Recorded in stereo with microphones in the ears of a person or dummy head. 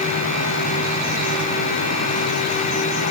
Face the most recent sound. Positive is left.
No sound to turn to.